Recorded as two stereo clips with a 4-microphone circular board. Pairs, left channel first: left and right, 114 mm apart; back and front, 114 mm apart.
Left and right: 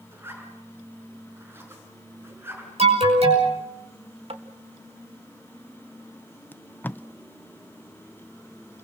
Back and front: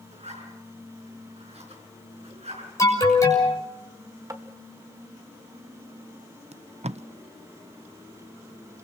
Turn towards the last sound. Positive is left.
turn(degrees=15)